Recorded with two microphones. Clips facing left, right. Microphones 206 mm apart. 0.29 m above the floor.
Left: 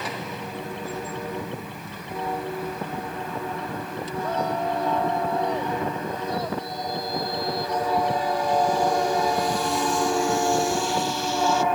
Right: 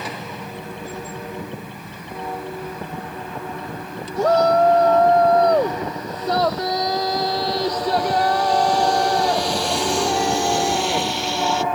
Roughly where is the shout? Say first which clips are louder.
Right 12 dB; right.